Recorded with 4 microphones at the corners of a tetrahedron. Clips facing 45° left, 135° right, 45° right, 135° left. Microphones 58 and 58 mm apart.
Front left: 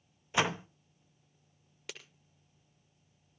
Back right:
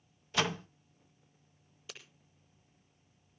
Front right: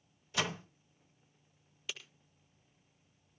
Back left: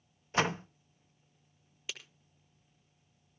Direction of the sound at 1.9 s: 60° left.